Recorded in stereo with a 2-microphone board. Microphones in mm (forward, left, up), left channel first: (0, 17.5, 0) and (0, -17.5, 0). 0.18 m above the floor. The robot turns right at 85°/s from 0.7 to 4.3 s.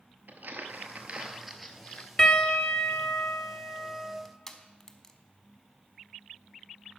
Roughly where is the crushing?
Centre.